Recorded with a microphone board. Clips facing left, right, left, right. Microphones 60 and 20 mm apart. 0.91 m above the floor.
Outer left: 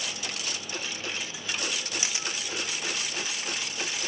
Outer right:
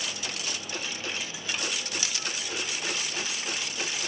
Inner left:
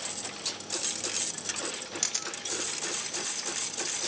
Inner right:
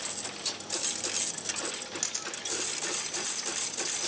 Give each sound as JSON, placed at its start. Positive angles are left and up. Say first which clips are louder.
{"t": 2.0, "sound": "a camera shutter", "louder": "outer left 1 dB, inner left 4 dB", "side_deg": 25, "distance_m": 0.8}